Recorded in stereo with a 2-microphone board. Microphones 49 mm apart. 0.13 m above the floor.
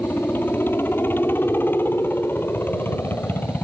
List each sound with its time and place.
0.0 s a helicopter: 50° left (ahead or behind)